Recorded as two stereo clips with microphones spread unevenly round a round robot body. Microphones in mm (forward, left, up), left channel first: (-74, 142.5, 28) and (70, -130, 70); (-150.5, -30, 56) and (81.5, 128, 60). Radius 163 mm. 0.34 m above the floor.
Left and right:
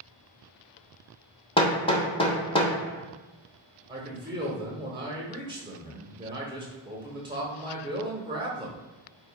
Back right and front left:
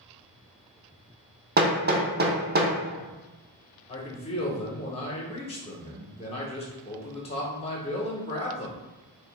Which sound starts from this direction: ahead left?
Hammering, at 1.6 s.